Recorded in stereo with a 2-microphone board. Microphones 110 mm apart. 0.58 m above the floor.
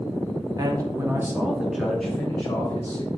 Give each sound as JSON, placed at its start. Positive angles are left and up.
{"t": 0.6, "sound": "a man speaking", "side_deg": -35, "distance_m": 1.3}